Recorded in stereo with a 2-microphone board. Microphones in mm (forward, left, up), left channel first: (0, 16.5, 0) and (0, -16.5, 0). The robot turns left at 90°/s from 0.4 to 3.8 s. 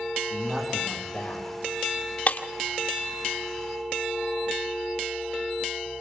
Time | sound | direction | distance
0.3 | a man speaking | 160° right | 4.5 m
2.3 | breaking glass | 40° left (ahead or behind) | 2.0 m